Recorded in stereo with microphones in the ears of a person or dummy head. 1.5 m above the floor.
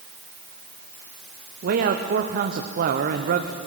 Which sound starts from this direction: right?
A man speaking, at 1.6 s.